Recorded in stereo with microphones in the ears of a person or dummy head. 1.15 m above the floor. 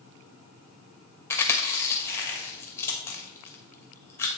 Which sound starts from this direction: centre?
Chewing, at 1.3 s.